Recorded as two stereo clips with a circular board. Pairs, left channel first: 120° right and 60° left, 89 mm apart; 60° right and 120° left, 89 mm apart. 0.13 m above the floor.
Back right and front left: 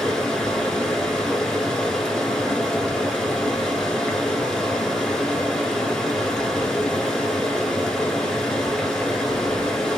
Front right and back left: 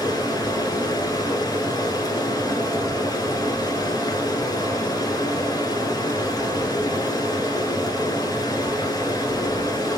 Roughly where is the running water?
Ahead right.